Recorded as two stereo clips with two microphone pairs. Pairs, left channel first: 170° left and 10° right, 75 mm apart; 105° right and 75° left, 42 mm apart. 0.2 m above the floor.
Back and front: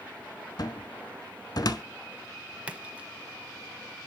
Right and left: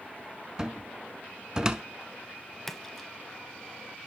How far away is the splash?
About 0.9 m.